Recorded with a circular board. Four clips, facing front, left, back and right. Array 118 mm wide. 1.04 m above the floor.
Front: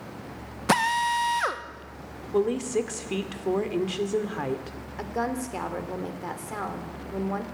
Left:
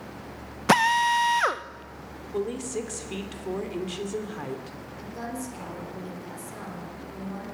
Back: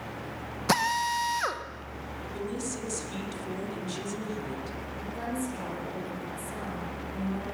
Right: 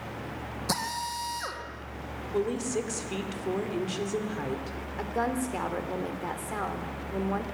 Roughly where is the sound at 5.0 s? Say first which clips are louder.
Right 6 dB, front 5 dB; ahead right.